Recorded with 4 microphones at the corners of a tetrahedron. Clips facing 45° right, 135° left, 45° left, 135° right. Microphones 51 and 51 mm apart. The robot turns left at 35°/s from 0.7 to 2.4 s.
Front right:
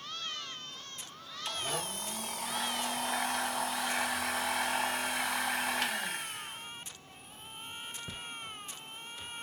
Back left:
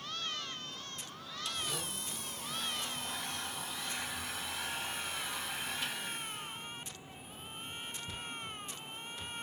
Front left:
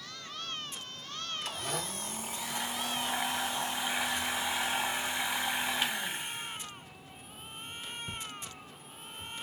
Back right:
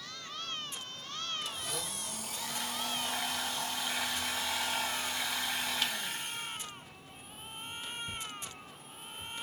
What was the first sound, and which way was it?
A blender, 10° left.